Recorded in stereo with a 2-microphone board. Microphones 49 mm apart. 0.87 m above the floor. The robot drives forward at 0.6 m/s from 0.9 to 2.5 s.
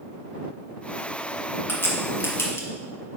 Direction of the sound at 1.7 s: 55° left (ahead or behind).